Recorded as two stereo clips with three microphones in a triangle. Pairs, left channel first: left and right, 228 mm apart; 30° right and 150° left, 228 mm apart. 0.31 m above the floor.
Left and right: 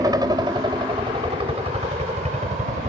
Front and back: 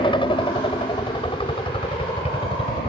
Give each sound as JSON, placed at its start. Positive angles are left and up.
{"t": 0.0, "sound": "a helicopter", "azimuth_deg": -45}